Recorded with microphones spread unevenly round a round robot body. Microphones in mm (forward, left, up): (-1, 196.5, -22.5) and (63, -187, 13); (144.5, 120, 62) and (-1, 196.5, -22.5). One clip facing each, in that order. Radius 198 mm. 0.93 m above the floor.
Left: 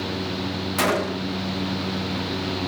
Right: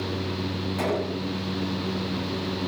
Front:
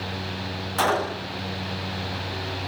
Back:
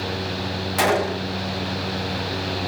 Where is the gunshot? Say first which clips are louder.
Left 3 dB, back 4 dB; 125° left.